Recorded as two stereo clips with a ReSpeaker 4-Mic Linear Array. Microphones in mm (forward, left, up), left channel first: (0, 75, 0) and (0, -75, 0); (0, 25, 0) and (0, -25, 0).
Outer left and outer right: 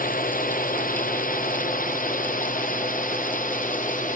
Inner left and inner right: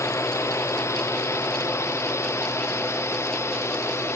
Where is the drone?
65° left (ahead or behind); by 4.2 s 60° left (ahead or behind).